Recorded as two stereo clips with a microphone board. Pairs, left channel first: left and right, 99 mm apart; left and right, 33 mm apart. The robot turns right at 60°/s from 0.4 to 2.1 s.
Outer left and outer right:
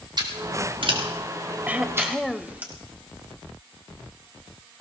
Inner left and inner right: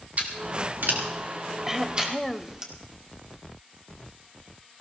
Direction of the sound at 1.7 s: 15° right (ahead or behind).